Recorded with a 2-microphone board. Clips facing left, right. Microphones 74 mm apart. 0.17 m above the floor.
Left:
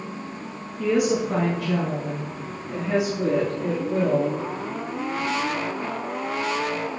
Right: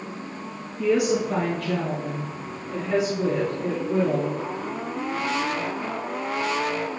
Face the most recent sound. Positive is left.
turn(degrees=25)  # may be behind; listen again after turning